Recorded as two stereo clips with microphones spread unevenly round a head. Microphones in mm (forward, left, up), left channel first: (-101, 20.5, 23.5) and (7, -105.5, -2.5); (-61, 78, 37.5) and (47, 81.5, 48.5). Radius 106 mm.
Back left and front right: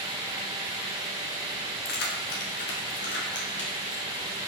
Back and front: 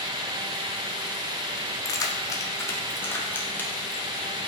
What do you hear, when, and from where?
1.9 s keys jangling: 125° left, 1.6 m; by 4.0 s 105° left, 3 m